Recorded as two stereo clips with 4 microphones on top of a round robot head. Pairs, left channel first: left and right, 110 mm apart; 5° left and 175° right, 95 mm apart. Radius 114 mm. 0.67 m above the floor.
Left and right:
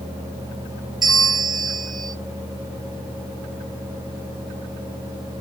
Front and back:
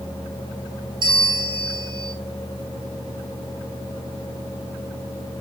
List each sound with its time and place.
1.0 s a bell: 175° right, 0.9 m